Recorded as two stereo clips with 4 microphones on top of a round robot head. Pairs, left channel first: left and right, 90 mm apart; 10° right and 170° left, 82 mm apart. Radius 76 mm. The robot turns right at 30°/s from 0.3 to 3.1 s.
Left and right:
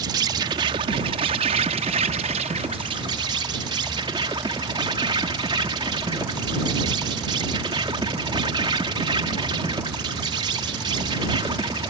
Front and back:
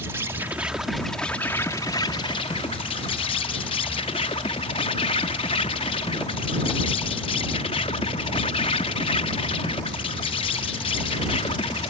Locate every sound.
0.0 s an insect: 120° right; by 11.9 s 35° right